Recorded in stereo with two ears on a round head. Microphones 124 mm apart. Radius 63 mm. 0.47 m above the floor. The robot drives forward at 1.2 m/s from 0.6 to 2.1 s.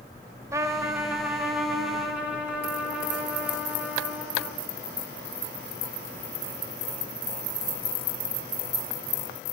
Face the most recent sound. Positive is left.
turn(degrees=-5)  # may be behind; listen again after turning